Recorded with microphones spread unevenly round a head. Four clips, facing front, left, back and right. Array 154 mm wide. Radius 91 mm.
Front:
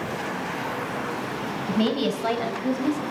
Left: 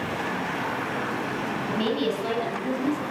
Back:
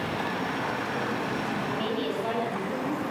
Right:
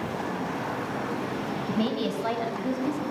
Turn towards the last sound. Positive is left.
turn(degrees=-15)